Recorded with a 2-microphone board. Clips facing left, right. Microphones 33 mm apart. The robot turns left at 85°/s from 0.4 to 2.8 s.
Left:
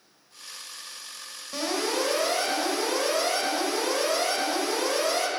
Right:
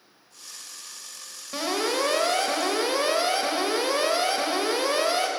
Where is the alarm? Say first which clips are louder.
Right 2 dB; 15° right, 1.3 m; by 5.3 s 125° right, 1.3 m.